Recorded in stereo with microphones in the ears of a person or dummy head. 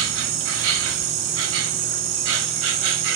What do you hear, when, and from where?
0.0 s an insect: 65° right (ahead or behind), 1.4 m